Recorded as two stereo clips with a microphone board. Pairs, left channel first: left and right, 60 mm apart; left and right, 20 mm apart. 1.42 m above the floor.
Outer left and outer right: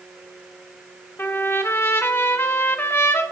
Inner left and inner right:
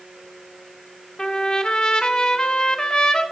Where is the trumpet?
35° left (ahead or behind), 0.7 m.